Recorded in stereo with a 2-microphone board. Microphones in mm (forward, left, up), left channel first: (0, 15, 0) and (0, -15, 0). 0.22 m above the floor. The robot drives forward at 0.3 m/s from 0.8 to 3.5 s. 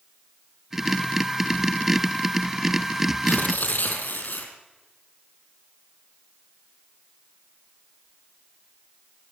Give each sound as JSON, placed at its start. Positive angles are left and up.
{"t": 3.3, "sound": "tearing paper", "side_deg": 80, "distance_m": 3.5}